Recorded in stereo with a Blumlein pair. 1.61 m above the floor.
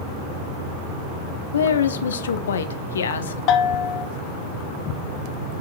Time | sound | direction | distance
1.5 | a woman speaking | 65° left | 0.8 m
3.5 | a bell | 40° left | 0.5 m